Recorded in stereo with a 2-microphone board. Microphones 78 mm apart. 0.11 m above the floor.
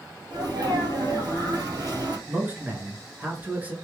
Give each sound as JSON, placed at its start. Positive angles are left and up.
{"t": 0.3, "sound": "a sneeze", "side_deg": -60, "distance_m": 2.0}
{"t": 2.3, "sound": "a man speaking", "side_deg": -20, "distance_m": 1.3}